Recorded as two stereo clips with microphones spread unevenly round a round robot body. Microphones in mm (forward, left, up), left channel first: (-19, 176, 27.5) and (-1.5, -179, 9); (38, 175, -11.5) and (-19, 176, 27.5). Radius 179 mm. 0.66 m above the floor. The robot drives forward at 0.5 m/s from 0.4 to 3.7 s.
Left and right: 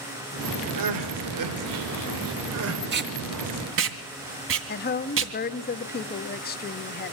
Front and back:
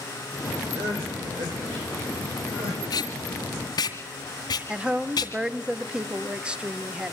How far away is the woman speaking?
About 0.9 m.